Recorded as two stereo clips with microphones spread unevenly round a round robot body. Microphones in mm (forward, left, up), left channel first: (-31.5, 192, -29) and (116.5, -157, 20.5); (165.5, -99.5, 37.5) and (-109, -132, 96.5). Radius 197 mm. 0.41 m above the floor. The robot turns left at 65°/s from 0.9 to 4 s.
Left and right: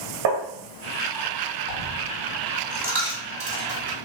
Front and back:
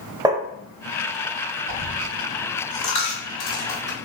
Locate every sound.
0.2 s tapping: 85° right, 0.6 m
1.7 s a dropped coin: 95° left, 1.3 m; by 4.0 s 55° right, 1.3 m